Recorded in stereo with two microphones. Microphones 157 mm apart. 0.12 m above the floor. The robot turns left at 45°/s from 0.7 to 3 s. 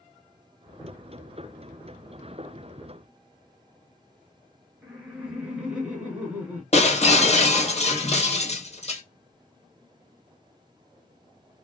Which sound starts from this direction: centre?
Laughter, at 4.8 s.